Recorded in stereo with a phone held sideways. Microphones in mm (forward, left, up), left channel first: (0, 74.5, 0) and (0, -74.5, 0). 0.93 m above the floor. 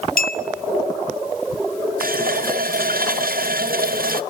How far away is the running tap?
About 0.6 m.